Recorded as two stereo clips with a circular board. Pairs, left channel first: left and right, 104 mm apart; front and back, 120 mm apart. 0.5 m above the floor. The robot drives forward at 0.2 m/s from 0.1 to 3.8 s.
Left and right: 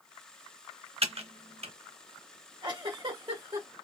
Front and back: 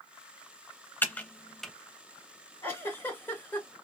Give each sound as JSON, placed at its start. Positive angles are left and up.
{"t": 1.0, "sound": "typing on a keyboard", "azimuth_deg": -75, "distance_m": 0.5}
{"t": 2.6, "sound": "a giggle", "azimuth_deg": -65, "distance_m": 1.7}